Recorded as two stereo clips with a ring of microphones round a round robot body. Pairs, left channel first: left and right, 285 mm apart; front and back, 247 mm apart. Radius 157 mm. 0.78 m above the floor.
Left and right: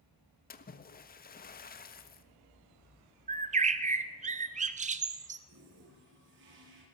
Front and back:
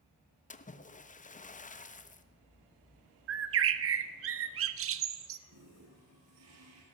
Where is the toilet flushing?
140° right, 6 m.